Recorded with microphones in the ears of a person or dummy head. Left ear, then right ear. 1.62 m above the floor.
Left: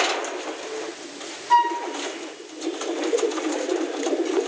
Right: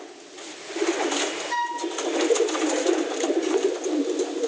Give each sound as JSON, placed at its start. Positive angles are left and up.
{"t": 1.5, "sound": "a flute", "side_deg": 40, "distance_m": 0.8}